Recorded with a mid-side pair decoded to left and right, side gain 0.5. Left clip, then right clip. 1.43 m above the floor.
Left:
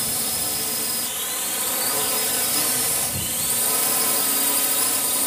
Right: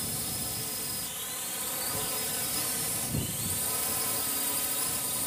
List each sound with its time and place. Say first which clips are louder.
0.0 s a drone: left 9 dB; 60° left